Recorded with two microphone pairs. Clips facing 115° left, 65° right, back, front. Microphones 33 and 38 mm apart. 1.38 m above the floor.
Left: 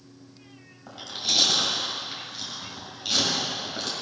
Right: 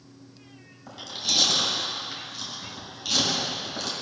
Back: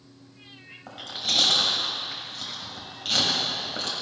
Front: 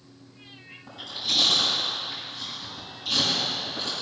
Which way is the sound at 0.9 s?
165° right.